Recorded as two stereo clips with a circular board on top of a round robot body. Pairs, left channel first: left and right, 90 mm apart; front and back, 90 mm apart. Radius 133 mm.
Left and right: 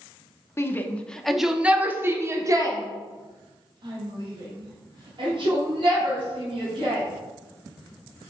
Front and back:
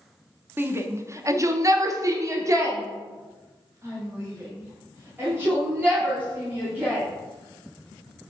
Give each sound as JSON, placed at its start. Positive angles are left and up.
{"t": 0.6, "sound": "a shout", "azimuth_deg": 130, "distance_m": 1.0}